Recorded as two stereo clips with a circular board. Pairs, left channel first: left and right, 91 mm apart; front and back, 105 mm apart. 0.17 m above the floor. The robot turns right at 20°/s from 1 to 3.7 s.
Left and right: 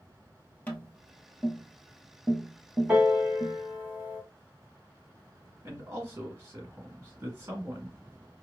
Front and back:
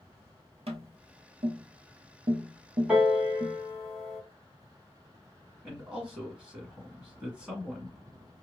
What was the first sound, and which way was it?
Tapping, 160° left.